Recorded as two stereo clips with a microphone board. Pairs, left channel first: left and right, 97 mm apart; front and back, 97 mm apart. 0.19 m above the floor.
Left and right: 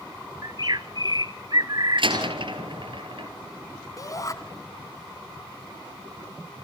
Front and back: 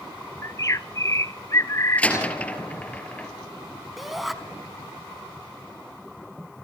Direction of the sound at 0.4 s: 55° right.